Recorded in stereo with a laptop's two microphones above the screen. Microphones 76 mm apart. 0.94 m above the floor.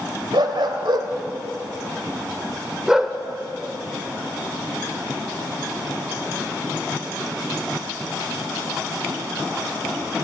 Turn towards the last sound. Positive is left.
turn(degrees=0)  # may be behind; listen again after turning